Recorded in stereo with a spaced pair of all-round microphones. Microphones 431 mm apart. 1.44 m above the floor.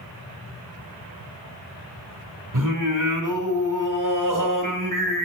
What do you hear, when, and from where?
2.5 s singing: 45° right (ahead or behind), 1.8 m